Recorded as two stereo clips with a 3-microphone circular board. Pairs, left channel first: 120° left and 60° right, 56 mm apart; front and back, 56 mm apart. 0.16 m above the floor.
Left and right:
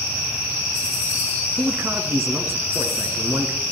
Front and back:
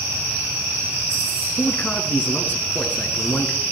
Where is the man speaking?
55° right, 1.9 m.